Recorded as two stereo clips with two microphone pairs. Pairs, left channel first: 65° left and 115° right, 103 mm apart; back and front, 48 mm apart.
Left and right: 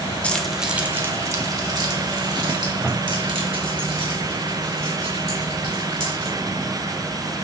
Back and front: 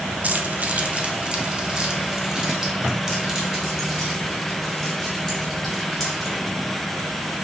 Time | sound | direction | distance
0.2 | keys jangling | straight ahead | 0.8 m